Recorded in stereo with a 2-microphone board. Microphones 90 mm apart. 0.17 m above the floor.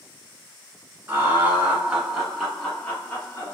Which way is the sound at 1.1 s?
25° right (ahead or behind).